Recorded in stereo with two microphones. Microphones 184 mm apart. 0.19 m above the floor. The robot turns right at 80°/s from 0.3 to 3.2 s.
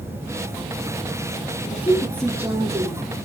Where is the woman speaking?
130° left, 5 m; by 3.2 s 105° right, 5 m.